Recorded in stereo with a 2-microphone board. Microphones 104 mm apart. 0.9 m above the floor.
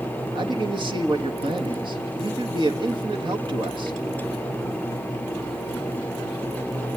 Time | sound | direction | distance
0.3 | a man speaking | 50° right (ahead or behind) | 1.5 m